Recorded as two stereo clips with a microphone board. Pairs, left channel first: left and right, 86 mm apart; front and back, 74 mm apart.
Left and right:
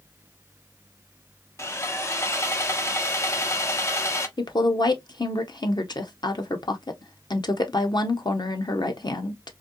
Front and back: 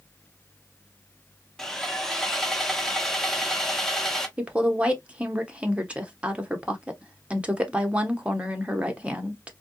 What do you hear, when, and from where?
1.6 s sawing: 80° left, 0.7 m
4.4 s a woman speaking: 110° left, 0.9 m